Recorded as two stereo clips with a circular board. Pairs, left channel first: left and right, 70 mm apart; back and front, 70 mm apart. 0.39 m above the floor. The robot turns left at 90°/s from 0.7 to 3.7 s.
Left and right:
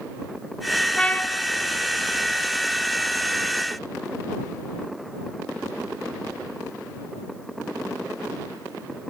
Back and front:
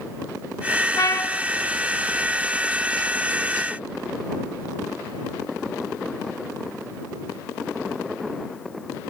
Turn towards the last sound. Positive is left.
turn(degrees=-80)